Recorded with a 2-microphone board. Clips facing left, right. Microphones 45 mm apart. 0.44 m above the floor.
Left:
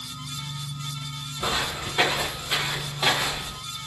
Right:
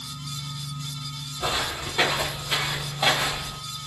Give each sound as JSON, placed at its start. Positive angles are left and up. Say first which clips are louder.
{"t": 1.4, "sound": "footsteps", "louder": "even", "side_deg": 25, "distance_m": 3.0}